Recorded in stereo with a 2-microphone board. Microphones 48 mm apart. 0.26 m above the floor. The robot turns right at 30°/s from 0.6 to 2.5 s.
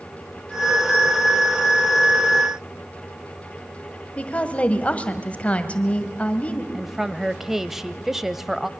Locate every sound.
4.2 s a woman speaking: 25° left (ahead or behind), 1.6 m
6.7 s a woman speaking: 5° right (ahead or behind), 0.9 m